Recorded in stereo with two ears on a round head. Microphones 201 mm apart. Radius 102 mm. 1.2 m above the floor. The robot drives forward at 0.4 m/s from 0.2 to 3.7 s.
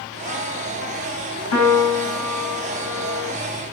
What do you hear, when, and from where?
1.5 s a piano: 80° left, 5.5 m; by 3.3 s 85° left, 5.5 m